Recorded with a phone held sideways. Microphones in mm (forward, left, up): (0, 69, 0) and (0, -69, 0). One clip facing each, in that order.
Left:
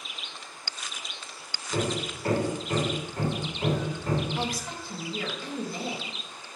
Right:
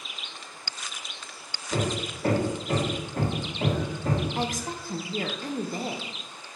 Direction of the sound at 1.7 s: 80° right.